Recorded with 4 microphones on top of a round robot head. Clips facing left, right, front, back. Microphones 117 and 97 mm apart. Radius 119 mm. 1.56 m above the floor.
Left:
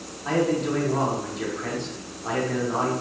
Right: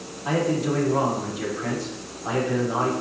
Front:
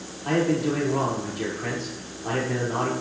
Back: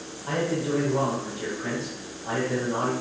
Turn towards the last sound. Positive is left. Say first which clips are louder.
# even, front 4 dB
turn(degrees=-5)